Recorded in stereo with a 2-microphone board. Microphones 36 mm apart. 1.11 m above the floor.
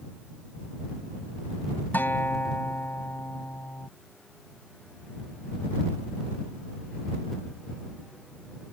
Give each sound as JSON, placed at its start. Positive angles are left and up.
{"t": 1.9, "sound": "a guitar", "side_deg": 65}